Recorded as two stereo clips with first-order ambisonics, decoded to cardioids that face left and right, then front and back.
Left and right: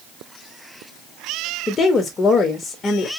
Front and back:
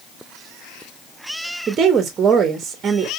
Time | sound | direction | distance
1.7 | a woman speaking | 135° left | 0.7 m